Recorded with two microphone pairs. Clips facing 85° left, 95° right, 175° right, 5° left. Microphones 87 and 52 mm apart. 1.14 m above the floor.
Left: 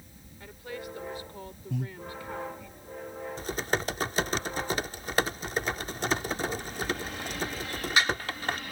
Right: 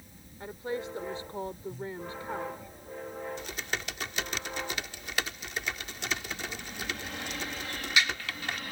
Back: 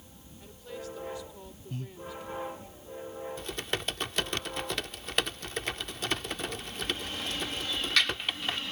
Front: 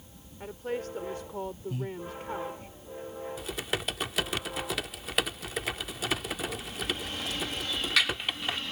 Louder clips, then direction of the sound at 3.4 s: Left 6 dB, front 2 dB; 95° left.